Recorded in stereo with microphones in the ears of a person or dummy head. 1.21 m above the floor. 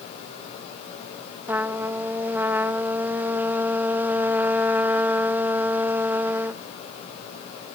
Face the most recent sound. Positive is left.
turn(degrees=-5)  # may be behind; listen again after turning